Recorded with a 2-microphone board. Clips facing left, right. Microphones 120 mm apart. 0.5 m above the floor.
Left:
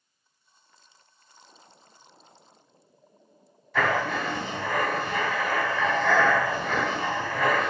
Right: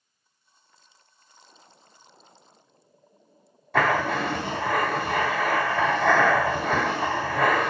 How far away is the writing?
About 0.6 m.